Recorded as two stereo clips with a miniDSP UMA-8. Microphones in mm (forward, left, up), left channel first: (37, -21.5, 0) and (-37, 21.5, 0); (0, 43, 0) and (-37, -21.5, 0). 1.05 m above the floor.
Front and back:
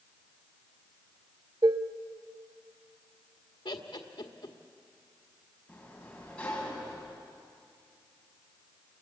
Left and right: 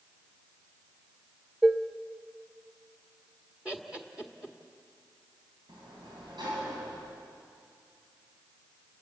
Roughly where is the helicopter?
No helicopter in this recording.